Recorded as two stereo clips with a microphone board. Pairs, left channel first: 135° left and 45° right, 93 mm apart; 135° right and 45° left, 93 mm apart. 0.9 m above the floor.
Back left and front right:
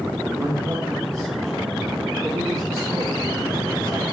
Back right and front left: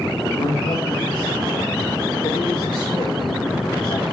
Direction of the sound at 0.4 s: 100° right.